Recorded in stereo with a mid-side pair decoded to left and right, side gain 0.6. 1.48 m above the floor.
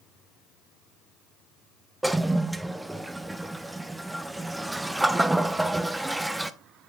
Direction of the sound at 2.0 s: 5° right.